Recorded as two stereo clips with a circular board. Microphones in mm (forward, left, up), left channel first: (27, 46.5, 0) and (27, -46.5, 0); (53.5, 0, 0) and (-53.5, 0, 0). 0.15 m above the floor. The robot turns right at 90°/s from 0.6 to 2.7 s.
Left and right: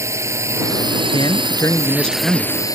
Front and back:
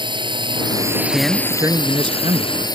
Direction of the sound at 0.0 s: 145° right.